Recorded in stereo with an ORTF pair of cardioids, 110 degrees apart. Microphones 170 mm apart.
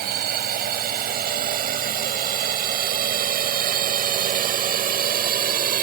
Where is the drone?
60° right; by 5.8 s 55° right.